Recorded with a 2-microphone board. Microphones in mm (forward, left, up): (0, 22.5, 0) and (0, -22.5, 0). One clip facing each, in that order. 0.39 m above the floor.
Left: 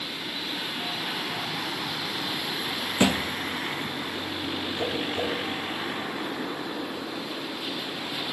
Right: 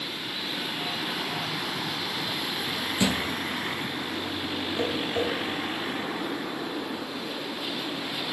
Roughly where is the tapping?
Right.